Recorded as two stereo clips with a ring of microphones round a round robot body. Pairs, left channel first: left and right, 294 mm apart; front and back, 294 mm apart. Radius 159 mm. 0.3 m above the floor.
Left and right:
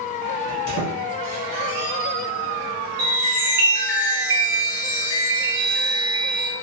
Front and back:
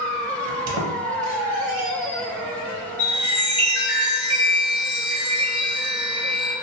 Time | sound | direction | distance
0.5 | a squeak | 140° left | 0.6 m
3.0 | a chime | 55° right | 1.5 m